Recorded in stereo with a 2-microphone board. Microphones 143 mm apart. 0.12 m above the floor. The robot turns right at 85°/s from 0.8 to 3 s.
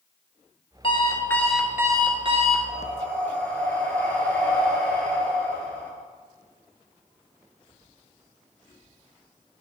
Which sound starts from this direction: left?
Breathing, at 2.7 s.